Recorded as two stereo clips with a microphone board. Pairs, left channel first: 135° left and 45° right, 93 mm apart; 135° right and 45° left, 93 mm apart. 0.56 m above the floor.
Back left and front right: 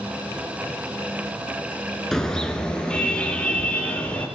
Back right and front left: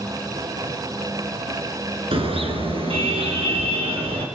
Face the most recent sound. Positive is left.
turn(degrees=60)